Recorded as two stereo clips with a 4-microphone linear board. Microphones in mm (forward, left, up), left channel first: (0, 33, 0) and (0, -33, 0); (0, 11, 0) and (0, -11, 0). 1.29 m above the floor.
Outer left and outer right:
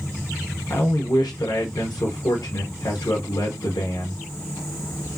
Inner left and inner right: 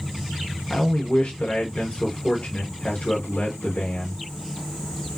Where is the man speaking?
85° left, 0.7 m.